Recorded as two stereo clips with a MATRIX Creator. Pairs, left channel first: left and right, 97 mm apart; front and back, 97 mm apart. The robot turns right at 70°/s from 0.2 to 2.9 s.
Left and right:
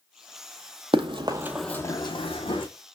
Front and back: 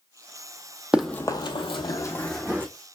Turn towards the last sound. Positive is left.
turn(degrees=130)